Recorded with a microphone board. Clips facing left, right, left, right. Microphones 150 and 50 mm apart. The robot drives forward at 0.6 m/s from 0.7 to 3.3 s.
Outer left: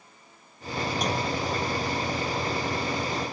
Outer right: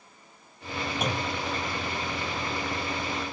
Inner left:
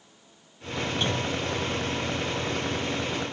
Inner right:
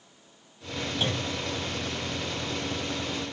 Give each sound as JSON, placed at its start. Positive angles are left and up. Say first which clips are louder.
{"t": 1.0, "sound": "a clunk", "louder": "outer left 2 dB, inner left 1 dB", "side_deg": -5, "distance_m": 1.0}